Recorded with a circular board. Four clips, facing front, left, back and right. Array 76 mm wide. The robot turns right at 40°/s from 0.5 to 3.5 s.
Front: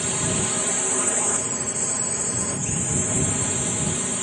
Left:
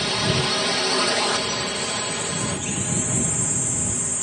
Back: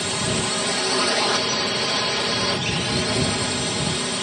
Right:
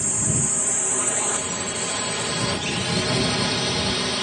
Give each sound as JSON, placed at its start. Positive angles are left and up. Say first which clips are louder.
{"t": 0.0, "sound": "a drone", "louder": "left 5 dB, back 2 dB", "azimuth_deg": 120}